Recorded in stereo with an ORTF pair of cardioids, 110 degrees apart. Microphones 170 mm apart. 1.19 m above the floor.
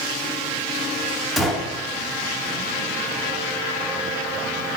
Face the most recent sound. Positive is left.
turn(degrees=0)